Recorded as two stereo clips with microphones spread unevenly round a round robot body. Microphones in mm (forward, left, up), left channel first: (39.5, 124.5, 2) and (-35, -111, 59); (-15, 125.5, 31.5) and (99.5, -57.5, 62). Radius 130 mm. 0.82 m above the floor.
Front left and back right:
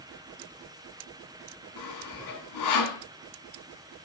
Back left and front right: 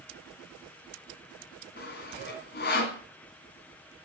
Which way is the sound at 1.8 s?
75° left.